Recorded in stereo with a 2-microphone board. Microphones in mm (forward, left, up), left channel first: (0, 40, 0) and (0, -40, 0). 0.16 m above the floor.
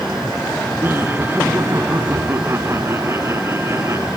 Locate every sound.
0.8 s laughter: 25° right (ahead or behind); by 4.1 s 35° right (ahead or behind)